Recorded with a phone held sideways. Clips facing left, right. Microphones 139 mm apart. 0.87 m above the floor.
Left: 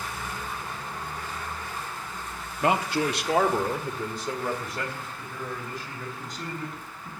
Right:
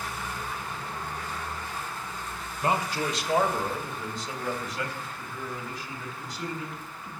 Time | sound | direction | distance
2.6 | a man speaking | 70° left (ahead or behind) | 1.2 m